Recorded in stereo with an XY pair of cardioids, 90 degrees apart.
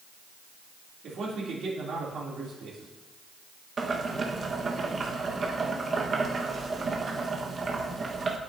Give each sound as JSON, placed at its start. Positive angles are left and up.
{"t": 1.0, "sound": "a man speaking", "azimuth_deg": -70, "distance_m": 3.0}
{"t": 3.8, "sound": "boiling", "azimuth_deg": -45, "distance_m": 1.3}